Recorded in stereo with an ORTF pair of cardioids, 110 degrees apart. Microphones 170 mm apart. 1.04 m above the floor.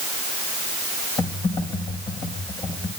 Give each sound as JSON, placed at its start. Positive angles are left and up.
{"t": 1.2, "sound": "typing on a keyboard", "azimuth_deg": 30, "distance_m": 5.5}